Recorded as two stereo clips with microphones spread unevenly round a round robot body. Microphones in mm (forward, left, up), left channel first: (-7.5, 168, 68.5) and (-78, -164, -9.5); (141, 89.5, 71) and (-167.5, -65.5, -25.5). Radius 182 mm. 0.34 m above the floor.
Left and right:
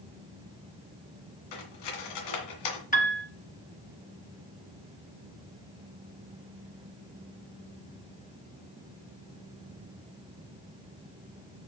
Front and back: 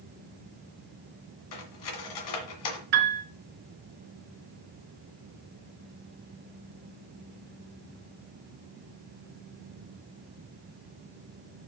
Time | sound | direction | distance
1.5 | cutlery clinking | 50° left | 2 m
2.9 | a piano | 150° left | 1.6 m